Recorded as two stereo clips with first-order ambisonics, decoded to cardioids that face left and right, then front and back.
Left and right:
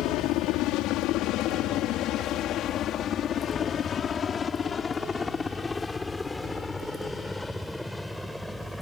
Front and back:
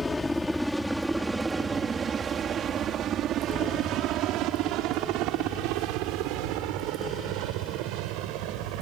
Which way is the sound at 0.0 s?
80° left.